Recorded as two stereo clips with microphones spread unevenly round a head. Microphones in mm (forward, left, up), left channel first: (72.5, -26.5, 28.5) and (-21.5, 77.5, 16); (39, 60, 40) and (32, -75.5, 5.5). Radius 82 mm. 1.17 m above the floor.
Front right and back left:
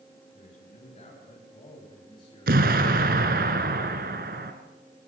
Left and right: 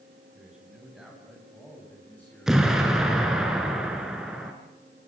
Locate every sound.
0.3 s a man speaking: 10° right, 9.5 m; by 2.6 s 15° left, 8 m
2.5 s an explosion: 175° left, 3 m